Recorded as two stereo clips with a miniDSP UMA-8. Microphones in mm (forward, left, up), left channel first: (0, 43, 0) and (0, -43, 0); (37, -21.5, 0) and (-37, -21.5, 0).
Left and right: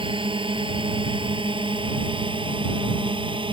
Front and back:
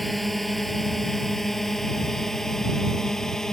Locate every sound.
0.0 s a drone: 90° right; by 3.5 s 85° right